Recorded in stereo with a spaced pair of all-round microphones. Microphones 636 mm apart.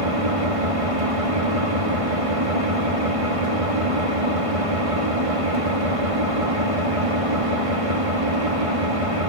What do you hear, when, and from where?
0.0 s an engine running: 55° right (ahead or behind), 2.5 m